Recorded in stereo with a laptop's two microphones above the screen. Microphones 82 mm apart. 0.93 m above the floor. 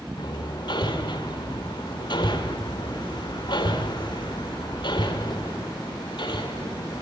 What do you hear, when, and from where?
0.2 s hammering: 65° left (ahead or behind), 2 m